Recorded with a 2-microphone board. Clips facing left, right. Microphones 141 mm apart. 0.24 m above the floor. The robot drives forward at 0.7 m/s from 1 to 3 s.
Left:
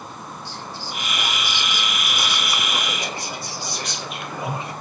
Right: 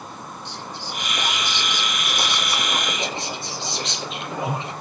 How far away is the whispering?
About 9 m.